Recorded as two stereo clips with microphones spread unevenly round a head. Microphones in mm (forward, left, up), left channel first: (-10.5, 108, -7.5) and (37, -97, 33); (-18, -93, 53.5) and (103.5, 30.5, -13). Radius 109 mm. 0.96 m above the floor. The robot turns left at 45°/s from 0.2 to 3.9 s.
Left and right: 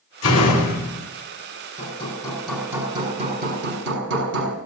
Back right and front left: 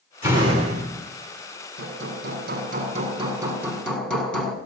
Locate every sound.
0.2 s a door slam: 125° left, 6 m; by 1.0 s 85° left, 6 m
1.8 s hammering: 45° left, 7.5 m; by 4.5 s 50° right, 7.5 m